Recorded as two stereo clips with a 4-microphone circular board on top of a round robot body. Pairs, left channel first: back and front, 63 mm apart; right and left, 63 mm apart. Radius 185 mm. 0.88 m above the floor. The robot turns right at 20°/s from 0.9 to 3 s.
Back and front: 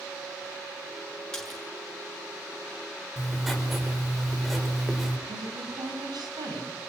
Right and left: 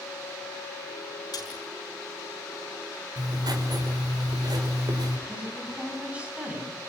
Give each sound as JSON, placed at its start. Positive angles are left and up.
{"t": 1.3, "sound": "a splash", "azimuth_deg": -95, "distance_m": 7.0}
{"t": 3.2, "sound": "writing", "azimuth_deg": 90, "distance_m": 5.0}
{"t": 5.3, "sound": "a woman speaking", "azimuth_deg": 15, "distance_m": 8.0}